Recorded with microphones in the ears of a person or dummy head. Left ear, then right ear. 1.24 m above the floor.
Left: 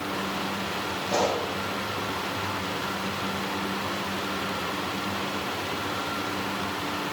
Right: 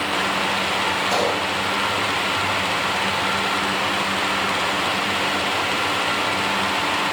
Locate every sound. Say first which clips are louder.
1.1 s a pop: right 5 dB; 35° right (ahead or behind), 9.5 m